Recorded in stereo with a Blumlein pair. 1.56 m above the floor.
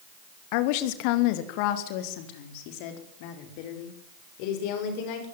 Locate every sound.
0.5 s a woman speaking: 45° left, 2 m